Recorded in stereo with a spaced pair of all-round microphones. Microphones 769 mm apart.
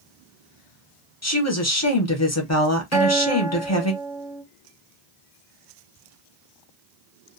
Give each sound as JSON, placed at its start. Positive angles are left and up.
{"t": 1.2, "sound": "a woman speaking", "side_deg": 20, "distance_m": 0.8}
{"t": 2.9, "sound": "a guitar", "side_deg": -5, "distance_m": 0.6}